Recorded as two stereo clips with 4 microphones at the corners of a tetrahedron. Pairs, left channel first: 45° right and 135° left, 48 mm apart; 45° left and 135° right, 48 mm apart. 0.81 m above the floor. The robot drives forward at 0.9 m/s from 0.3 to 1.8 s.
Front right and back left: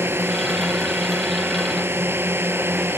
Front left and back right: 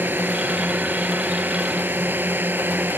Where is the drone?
175° left.